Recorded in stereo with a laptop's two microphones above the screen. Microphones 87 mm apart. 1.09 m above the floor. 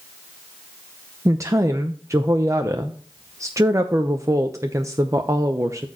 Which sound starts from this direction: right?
A woman speaking, at 1.2 s.